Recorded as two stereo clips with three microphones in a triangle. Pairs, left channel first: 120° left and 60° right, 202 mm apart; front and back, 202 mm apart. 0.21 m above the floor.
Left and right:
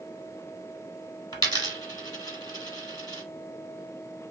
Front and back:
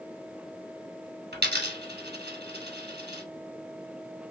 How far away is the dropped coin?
About 0.9 m.